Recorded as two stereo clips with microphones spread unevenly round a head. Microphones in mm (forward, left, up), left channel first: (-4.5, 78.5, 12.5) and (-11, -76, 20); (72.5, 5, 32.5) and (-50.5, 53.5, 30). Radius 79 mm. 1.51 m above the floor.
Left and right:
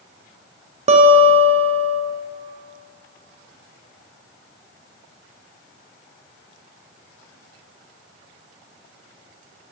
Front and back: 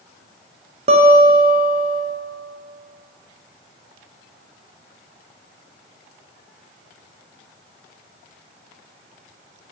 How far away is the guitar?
About 0.6 m.